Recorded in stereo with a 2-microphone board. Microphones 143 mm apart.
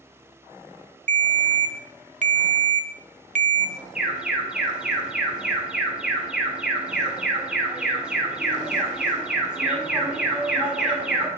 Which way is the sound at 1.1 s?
60° right (ahead or behind).